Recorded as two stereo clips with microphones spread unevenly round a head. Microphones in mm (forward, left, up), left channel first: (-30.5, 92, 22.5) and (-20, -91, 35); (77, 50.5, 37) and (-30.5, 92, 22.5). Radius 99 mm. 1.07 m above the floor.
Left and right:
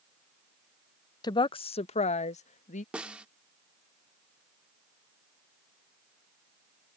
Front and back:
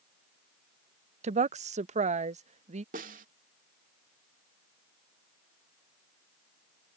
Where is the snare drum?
170° right.